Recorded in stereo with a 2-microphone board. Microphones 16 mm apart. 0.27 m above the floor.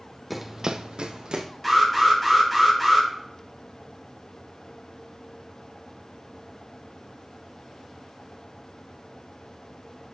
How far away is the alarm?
About 4 m.